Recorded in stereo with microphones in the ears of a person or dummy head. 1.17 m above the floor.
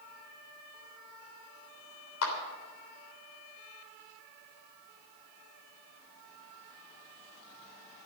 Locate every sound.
2.2 s a clap: 75° left (ahead or behind), 3 m